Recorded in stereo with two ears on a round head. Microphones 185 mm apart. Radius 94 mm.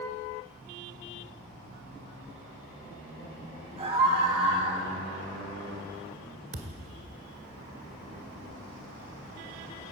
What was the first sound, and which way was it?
A scream, 30° right (ahead or behind).